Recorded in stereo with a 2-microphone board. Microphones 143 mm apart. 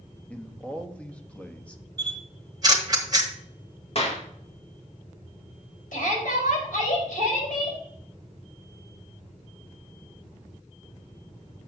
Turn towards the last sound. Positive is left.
turn(degrees=80)